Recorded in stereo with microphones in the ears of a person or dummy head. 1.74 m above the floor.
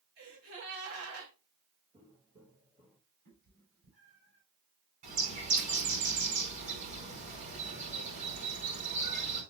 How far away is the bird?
About 4.5 m.